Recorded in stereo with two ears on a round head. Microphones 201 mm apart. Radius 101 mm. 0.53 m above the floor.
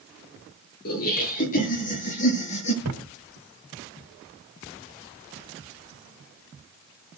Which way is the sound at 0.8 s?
45° left (ahead or behind).